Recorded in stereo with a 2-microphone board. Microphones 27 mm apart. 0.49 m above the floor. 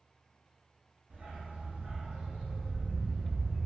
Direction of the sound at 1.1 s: 80° right.